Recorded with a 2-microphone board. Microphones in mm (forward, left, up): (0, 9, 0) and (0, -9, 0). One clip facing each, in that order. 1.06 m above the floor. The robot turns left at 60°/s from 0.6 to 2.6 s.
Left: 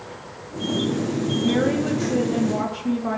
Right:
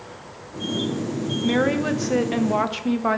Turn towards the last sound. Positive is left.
turn(degrees=-95)